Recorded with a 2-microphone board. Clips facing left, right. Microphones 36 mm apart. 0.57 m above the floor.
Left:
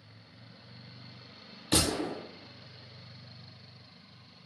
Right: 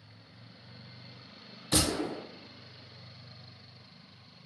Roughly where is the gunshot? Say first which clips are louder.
Even; left.